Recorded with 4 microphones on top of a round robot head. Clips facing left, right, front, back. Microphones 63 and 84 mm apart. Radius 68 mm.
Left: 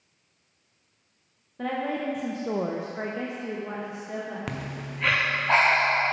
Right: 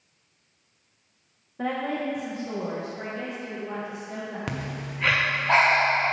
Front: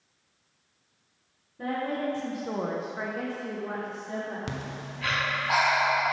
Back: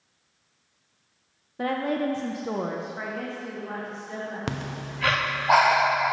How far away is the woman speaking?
About 0.9 m.